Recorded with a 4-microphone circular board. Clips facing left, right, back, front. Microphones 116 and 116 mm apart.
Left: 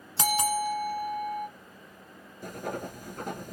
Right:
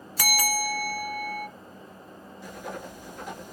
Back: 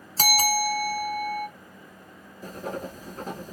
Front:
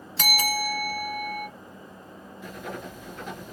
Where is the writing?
130° left, 1.1 m.